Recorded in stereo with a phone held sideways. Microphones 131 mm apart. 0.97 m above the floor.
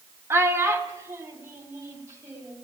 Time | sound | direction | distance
0.3 | a child speaking | 20° right (ahead or behind) | 1.0 m